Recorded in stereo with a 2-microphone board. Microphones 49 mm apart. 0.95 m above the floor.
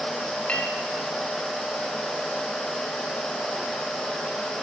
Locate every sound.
0.5 s a clink: 30° left (ahead or behind), 3.5 m